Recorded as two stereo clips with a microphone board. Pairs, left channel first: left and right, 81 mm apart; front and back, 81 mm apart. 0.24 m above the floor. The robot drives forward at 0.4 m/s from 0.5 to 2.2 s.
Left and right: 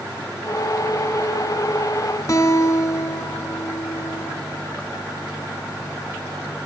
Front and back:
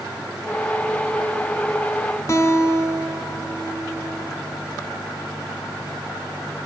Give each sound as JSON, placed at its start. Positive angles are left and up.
{"t": 2.3, "sound": "a guitar", "azimuth_deg": 50, "distance_m": 1.0}